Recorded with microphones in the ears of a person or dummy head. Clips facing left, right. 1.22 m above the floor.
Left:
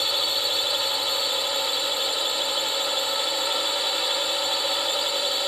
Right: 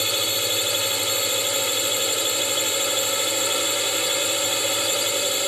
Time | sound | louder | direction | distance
0.0 | a drone | right 3 dB | 35° right (ahead or behind) | ?